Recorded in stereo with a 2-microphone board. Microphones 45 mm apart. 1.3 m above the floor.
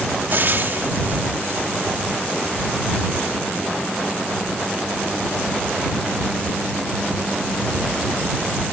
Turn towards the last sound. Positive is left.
turn(degrees=-50)  # may be behind; listen again after turning